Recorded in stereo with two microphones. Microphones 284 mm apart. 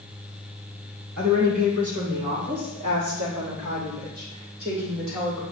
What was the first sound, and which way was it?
A woman speaking, 75° right (ahead or behind).